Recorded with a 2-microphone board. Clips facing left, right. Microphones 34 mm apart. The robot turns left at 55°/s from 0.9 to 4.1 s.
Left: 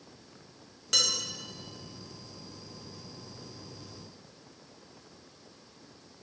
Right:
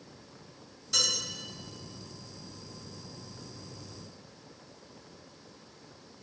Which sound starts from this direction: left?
Dishes clattering, at 0.9 s.